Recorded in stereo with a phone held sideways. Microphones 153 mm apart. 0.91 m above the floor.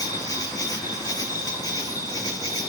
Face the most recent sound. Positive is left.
turn(degrees=25)  # may be behind; listen again after turning